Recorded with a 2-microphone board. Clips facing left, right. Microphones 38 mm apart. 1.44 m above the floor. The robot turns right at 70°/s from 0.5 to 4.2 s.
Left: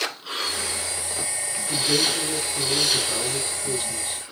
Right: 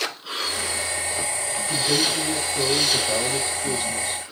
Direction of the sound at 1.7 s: Straight behind.